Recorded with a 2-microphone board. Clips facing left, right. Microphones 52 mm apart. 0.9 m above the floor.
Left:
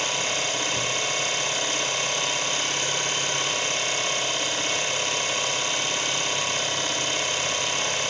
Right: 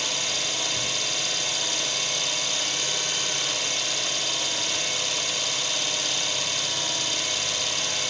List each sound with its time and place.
0.0 s an engine running: 40° left (ahead or behind), 1.1 m